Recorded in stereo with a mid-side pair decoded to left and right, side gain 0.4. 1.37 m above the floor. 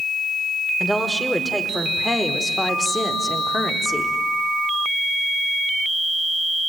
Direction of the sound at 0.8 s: 10° left.